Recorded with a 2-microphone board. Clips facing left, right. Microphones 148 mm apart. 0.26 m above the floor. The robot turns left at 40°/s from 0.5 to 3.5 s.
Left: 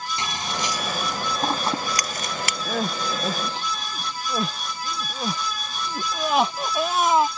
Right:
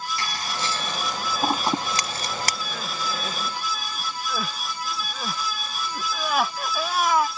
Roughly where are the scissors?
Left.